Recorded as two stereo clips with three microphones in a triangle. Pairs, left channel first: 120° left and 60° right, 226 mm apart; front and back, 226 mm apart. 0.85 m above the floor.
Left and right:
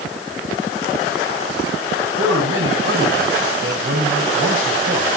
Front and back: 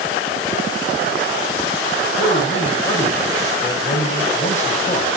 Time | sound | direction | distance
2.2 | a man speaking | 60° right | 5 m